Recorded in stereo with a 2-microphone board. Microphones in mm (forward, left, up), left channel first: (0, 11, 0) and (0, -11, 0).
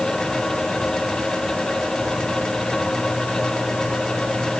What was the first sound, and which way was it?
Only background noise.